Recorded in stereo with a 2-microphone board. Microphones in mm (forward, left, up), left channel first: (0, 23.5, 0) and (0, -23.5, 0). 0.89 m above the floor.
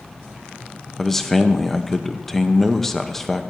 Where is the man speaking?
5° left (ahead or behind), 0.7 m.